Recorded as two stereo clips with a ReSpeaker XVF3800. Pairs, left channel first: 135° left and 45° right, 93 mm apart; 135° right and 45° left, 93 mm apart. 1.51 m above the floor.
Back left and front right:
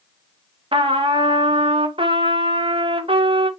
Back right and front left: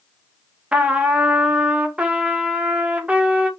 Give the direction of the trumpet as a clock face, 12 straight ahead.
1 o'clock.